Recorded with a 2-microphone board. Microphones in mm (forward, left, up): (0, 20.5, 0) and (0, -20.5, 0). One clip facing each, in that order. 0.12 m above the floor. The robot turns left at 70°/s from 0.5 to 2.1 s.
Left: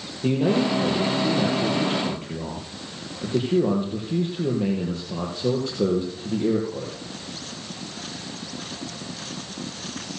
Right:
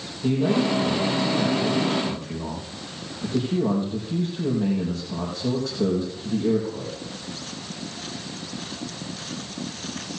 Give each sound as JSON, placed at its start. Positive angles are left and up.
{"t": 0.2, "sound": "a man speaking", "azimuth_deg": 145, "distance_m": 4.5}